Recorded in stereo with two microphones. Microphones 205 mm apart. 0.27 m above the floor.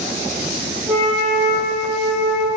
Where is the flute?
15° right (ahead or behind), 0.9 m.